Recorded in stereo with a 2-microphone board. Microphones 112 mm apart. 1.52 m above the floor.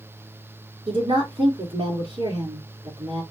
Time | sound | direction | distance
0.9 | a woman speaking | 60° right (ahead or behind) | 3.5 m